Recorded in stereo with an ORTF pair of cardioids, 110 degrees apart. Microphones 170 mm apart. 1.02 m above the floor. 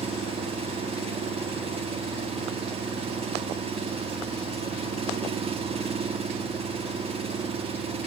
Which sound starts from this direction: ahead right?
An engine running, at 0.0 s.